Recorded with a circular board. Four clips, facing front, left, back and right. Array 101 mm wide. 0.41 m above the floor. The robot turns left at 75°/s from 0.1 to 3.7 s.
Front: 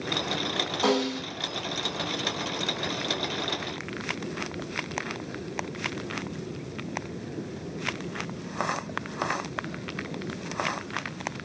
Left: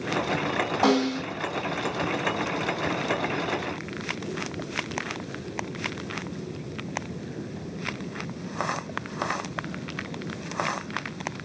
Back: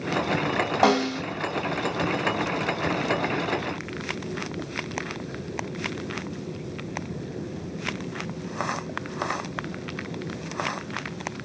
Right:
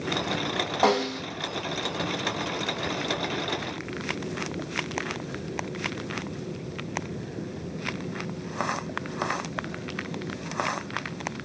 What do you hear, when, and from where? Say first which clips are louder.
0.8 s a snare drum: left 1 dB, back 3 dB; 165° right, 1.8 m; by 1.2 s 165° left, 1.8 m